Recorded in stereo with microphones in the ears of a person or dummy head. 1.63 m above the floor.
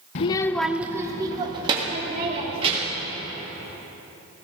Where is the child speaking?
30° left (ahead or behind), 0.7 m; by 3.1 s 30° right (ahead or behind), 4 m.